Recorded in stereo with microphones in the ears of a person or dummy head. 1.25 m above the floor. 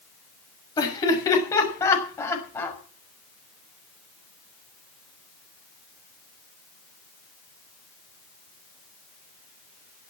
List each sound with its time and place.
0.8 s laughter: 20° left (ahead or behind), 6 m; by 2.8 s 10° left (ahead or behind), 6 m